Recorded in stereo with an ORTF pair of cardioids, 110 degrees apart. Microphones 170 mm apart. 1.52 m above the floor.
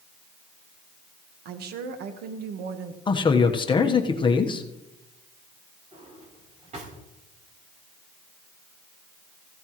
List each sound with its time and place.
1.4 s a woman speaking: 70° right, 1.5 m
3.1 s a man speaking: 30° left, 1.2 m
5.9 s a drawer: 45° right, 4.5 m